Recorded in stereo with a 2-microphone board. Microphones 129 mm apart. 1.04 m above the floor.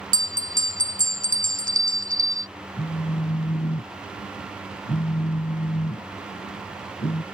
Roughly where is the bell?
Right.